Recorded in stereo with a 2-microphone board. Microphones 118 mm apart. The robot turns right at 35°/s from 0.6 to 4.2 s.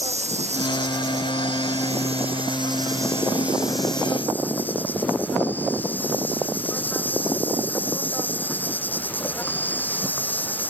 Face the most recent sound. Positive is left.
turn(degrees=15)